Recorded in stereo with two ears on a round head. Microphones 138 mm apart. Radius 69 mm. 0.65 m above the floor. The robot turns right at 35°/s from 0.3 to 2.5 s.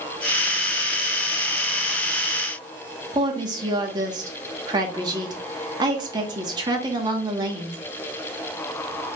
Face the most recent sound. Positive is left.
turn(degrees=-25)  # may be behind; listen again after turning